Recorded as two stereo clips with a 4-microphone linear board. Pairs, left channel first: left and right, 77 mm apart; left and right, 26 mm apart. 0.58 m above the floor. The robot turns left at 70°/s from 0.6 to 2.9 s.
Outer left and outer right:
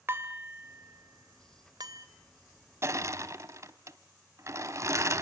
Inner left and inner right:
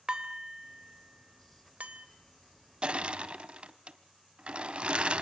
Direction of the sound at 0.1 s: 30° right (ahead or behind).